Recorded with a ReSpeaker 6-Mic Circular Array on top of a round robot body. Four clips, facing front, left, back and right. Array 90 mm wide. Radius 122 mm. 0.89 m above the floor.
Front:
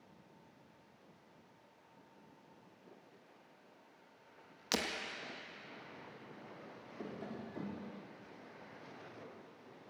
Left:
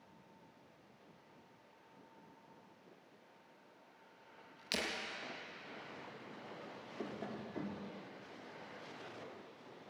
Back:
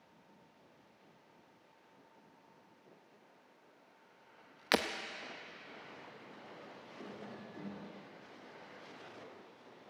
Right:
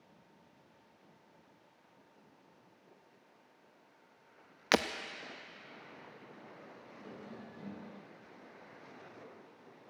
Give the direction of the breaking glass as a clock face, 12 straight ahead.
4 o'clock.